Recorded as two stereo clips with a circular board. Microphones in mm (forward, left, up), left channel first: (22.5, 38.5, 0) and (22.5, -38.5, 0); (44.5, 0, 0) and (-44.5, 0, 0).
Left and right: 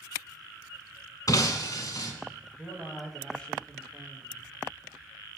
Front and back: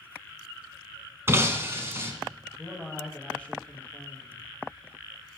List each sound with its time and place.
1.3 s breaking glass: 120° left, 1.0 m
2.6 s a man speaking: 40° left, 1.0 m